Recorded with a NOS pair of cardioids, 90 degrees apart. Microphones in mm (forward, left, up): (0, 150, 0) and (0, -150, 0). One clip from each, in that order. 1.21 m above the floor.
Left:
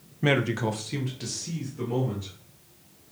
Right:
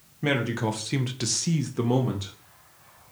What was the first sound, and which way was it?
A man speaking, 15° left.